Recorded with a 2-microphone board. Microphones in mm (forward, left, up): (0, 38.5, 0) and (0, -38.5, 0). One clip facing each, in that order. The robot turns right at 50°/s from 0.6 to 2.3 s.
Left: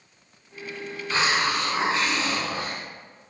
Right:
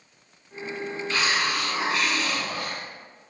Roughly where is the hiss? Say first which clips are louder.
Left 3 dB; ahead left.